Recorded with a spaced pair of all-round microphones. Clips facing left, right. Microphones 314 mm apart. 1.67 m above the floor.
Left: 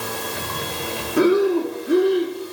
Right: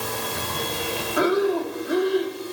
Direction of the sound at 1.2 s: 35° left (ahead or behind).